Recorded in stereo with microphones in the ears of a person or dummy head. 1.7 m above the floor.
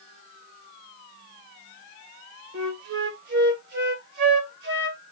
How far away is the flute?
About 2.5 m.